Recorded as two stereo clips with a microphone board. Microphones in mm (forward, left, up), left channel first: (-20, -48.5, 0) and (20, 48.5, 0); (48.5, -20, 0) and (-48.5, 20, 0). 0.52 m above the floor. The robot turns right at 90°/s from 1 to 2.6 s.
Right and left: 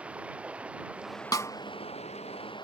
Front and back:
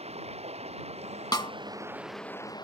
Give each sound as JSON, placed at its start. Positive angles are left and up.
{"t": 0.0, "sound": "running water", "azimuth_deg": 145}
{"t": 1.3, "sound": "a snare drum", "azimuth_deg": -65}